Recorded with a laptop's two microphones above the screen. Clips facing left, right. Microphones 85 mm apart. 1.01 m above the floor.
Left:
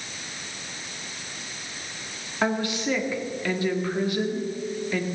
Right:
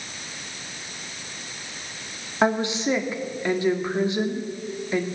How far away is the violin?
No violin in this recording.